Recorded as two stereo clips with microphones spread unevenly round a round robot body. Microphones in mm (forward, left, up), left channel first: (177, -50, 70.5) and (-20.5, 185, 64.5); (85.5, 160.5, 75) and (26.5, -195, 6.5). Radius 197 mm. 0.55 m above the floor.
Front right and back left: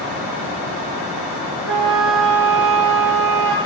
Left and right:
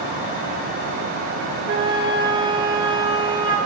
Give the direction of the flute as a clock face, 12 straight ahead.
6 o'clock.